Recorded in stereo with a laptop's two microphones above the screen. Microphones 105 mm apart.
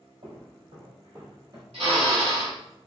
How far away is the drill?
About 1.5 m.